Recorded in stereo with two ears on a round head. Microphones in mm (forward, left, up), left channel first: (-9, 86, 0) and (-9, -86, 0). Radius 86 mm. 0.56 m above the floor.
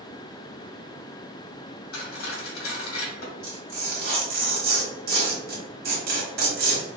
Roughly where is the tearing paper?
Right.